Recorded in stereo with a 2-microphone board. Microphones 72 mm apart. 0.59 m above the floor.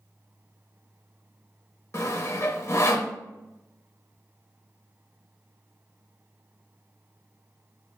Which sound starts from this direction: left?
Sawing, at 1.9 s.